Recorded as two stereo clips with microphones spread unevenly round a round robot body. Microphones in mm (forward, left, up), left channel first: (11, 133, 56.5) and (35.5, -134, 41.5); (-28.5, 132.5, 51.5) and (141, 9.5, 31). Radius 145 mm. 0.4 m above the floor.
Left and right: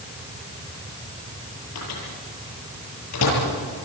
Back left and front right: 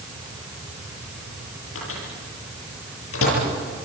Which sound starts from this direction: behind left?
A microwave, at 1.8 s.